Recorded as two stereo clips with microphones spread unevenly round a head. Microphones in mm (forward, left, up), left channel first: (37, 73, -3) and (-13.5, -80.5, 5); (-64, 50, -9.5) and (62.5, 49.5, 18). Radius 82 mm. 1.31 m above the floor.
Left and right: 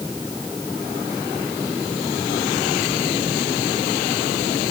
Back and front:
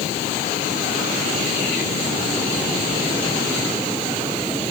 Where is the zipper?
No zipper in this recording.